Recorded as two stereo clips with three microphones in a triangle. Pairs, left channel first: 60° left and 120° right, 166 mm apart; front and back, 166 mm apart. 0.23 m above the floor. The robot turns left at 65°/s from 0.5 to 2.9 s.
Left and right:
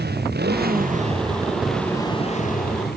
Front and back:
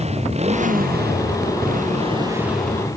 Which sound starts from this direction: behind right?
A motorcycle, at 0.0 s.